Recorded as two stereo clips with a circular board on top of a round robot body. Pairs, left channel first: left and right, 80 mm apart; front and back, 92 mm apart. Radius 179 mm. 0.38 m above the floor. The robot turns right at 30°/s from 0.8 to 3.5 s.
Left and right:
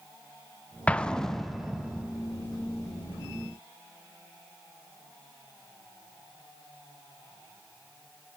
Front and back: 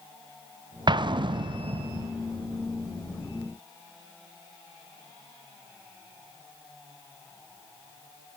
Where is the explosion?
160° left, 0.5 m; by 2.1 s 160° right, 0.5 m.